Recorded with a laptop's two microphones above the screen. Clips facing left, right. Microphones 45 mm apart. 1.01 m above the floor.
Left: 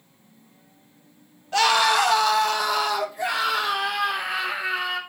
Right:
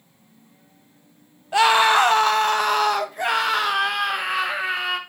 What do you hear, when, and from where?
1.5 s a scream: 15° right (ahead or behind), 0.7 m; by 5.0 s 60° right (ahead or behind), 2.5 m